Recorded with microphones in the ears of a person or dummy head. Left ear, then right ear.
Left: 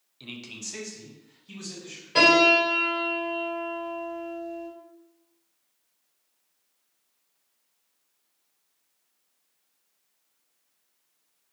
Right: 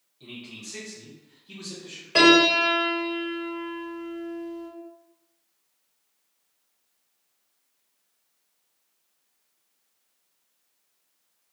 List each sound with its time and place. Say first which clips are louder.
0.2 s a man speaking: left 2 dB; 65° left (ahead or behind), 0.7 m; by 2.0 s 60° left (ahead or behind), 2.5 m
2.1 s a piano: right 1 dB; 20° right (ahead or behind), 1.2 m